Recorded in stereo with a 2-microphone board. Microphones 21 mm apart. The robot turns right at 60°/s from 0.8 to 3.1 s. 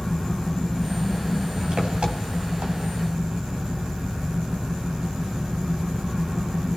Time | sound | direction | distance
0.0 | an engine running | 170° left | 2.5 m